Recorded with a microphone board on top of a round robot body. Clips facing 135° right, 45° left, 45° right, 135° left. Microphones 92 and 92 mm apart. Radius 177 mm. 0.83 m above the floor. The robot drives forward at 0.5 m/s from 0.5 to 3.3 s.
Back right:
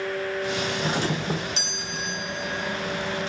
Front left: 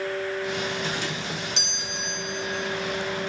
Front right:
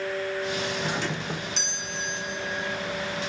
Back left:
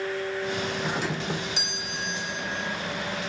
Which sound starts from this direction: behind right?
A doorbell, at 0.8 s.